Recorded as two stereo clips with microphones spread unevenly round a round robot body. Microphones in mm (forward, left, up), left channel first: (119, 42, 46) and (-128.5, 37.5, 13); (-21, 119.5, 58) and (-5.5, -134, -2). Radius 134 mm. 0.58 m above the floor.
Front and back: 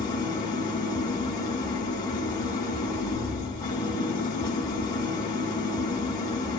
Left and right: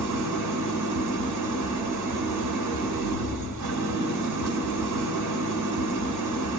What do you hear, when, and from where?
0.0 s an engine running: 75° right, 1.4 m